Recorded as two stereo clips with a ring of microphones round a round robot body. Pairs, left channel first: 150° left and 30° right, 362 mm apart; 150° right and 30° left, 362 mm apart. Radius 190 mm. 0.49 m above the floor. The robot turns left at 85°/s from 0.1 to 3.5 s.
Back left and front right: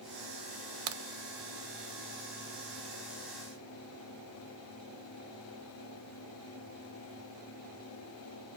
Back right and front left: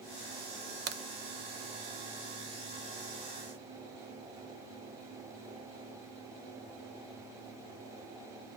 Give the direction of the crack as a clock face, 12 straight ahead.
1 o'clock.